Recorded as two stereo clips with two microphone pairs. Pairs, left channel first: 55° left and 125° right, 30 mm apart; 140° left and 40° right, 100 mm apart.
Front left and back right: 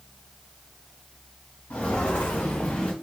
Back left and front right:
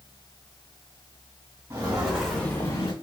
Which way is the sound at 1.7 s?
25° left.